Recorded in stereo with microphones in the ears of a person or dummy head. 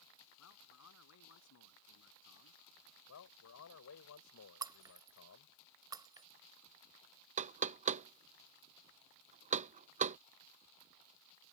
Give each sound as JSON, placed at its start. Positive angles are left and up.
{"t": 0.4, "sound": "a man speaking", "side_deg": 85}
{"t": 3.1, "sound": "a man speaking", "side_deg": 85}
{"t": 4.6, "sound": "breaking glass", "side_deg": -15}
{"t": 7.4, "sound": "knocking", "side_deg": -35}